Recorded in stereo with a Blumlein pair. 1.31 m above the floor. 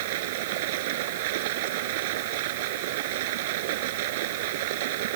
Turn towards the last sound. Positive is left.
turn(degrees=-50)